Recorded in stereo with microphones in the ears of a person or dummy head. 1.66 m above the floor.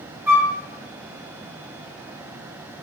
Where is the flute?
15° right (ahead or behind), 0.9 m.